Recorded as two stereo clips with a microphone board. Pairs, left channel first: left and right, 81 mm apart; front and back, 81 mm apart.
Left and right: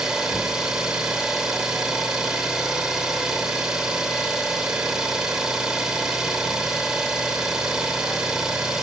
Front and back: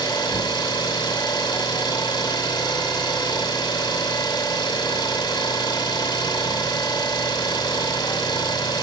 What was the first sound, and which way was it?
An engine running, 10° right.